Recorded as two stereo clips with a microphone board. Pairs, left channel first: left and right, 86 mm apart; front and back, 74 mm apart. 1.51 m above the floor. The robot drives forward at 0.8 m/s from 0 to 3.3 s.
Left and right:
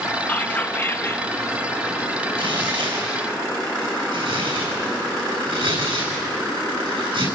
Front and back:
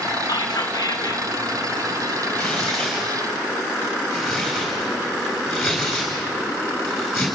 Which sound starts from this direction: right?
Tearing paper, at 2.4 s.